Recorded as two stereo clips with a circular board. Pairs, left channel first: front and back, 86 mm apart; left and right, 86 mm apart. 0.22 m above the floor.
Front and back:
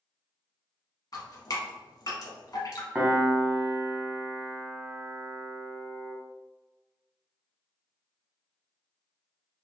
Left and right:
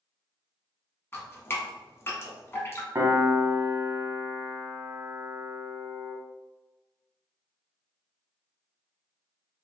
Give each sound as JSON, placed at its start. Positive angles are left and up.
{"t": 1.1, "sound": "dripping", "azimuth_deg": 35, "distance_m": 0.9}
{"t": 3.0, "sound": "a piano", "azimuth_deg": -110, "distance_m": 0.5}